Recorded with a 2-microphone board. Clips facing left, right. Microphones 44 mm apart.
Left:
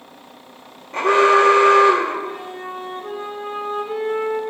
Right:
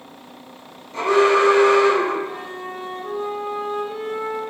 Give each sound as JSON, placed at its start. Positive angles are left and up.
{"t": 0.9, "sound": "an alarm", "side_deg": 50, "distance_m": 0.7}
{"t": 2.2, "sound": "a flute", "side_deg": 35, "distance_m": 0.5}